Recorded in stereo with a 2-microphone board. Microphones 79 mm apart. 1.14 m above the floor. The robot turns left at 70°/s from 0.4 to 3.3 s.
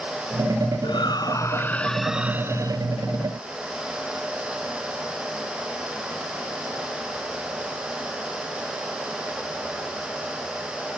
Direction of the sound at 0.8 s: 85° left.